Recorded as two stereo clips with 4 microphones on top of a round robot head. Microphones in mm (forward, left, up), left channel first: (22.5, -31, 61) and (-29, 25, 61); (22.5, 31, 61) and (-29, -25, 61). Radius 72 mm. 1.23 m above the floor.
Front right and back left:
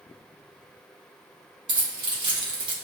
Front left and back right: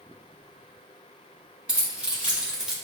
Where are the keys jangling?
155° left, 1.4 m; by 2.7 s 145° left, 0.8 m.